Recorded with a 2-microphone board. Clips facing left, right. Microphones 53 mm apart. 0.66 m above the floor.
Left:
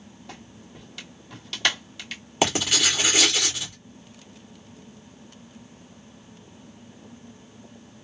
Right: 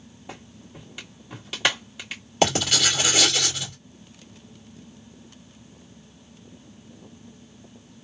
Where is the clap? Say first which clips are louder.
Right 3 dB; 15° right (ahead or behind), 1.6 m.